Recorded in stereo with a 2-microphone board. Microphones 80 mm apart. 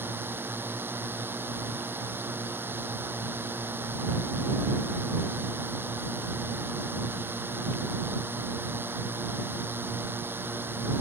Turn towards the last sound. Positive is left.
turn(degrees=-25)  # may be behind; listen again after turning